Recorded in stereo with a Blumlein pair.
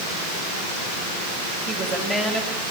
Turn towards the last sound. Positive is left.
turn(degrees=-10)